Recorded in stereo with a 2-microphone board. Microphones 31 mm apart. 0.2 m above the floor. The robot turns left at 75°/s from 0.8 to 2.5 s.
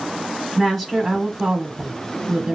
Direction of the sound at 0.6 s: 20° left.